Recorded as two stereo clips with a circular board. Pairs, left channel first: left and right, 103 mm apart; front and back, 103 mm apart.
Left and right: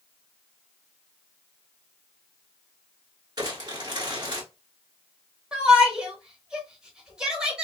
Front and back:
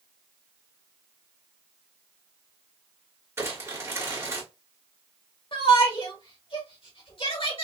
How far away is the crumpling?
About 1.9 m.